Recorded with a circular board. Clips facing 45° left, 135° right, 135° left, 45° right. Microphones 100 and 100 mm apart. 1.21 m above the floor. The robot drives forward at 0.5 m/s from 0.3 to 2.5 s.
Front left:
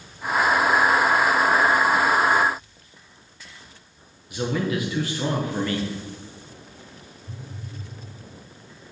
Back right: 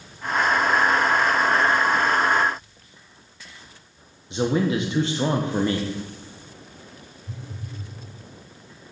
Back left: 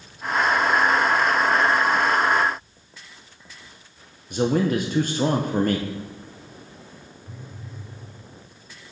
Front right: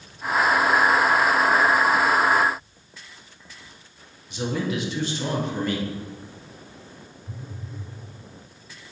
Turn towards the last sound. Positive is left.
turn(degrees=-110)